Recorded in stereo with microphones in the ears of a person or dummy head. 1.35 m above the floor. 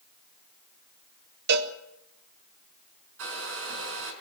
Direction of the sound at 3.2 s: 75° right (ahead or behind).